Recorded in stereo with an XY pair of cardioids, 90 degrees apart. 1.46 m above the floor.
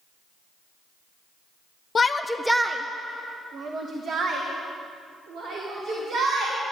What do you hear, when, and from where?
1.9 s a shout: 40° left, 0.7 m; by 6.6 s 80° right, 4 m